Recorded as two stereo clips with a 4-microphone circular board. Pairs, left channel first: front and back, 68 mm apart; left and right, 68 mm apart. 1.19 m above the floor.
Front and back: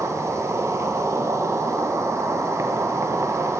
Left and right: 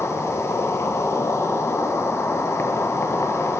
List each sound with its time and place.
0.0 s an insect: 135° left, 0.7 m